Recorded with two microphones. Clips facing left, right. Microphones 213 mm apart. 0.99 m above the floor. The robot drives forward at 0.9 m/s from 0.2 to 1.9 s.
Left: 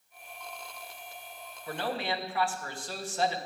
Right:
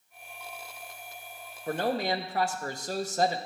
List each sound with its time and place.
1.7 s a man speaking: 45° right (ahead or behind), 1.0 m; by 3.4 s 40° right (ahead or behind), 1.2 m